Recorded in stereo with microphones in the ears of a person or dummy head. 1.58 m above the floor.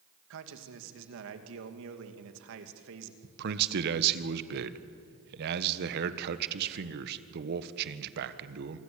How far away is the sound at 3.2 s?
About 1.5 m.